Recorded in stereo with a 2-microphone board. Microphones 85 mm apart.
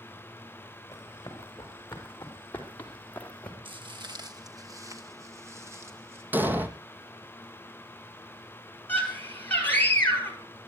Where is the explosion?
25° right (ahead or behind), 1.1 m.